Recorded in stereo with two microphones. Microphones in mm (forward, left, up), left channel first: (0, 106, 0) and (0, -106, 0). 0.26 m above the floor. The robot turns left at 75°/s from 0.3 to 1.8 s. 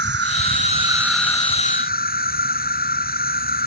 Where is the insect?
115° right; by 3.7 s 130° left.